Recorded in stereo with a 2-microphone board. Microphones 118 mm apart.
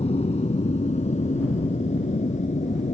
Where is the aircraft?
60° left (ahead or behind); by 2.9 s 80° left.